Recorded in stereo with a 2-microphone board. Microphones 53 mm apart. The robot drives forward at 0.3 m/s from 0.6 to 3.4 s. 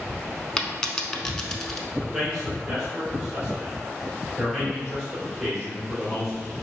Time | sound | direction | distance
0.6 | a dropped coin | 15° left (ahead or behind) | 0.6 m
1.9 | a man speaking | 10° right (ahead or behind) | 1.8 m